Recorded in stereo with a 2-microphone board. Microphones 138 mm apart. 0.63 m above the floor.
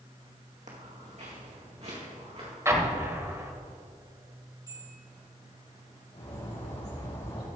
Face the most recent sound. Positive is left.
turn(degrees=50)  # may be behind; listen again after turning